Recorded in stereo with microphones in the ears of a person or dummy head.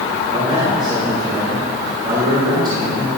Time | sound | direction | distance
0.3 | a man speaking | 25° right (ahead or behind) | 3 m